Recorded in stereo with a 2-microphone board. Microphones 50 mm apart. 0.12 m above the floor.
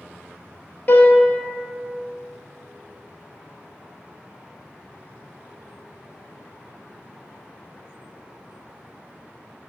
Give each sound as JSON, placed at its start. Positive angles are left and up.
{"t": 0.9, "sound": "a piano", "side_deg": 35, "distance_m": 0.9}